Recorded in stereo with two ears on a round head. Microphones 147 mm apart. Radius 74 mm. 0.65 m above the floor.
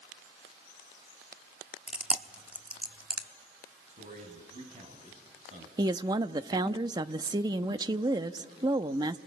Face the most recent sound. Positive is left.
turn(degrees=-25)  # may be behind; listen again after turning